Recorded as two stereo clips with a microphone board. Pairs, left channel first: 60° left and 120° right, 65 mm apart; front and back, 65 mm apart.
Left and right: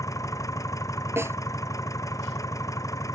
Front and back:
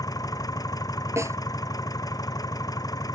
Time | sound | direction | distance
0.0 | an engine running | 25° left | ?
1.2 | a snare drum | 155° right | ?